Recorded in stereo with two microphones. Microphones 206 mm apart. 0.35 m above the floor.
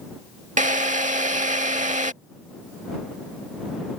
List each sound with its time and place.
0.6 s a drill: 35° right (ahead or behind)